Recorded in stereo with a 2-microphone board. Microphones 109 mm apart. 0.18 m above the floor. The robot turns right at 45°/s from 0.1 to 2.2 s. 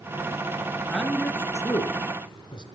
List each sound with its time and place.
0.9 s a man speaking: centre (ahead or behind), 2.5 m; by 2.6 s 50° left (ahead or behind), 2.5 m